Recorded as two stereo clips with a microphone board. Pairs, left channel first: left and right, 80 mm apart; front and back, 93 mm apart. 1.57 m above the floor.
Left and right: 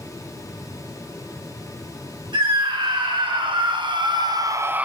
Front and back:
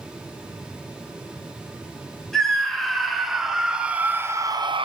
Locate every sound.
2.3 s a scream: 85° right, 3.5 m; by 4.8 s 165° right, 0.8 m